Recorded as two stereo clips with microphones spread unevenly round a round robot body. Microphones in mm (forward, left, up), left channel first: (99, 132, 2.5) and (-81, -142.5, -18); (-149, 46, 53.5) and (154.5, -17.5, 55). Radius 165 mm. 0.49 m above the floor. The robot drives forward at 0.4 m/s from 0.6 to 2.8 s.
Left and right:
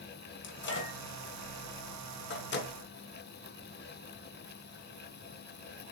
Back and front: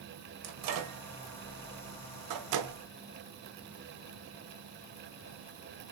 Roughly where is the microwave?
Ahead.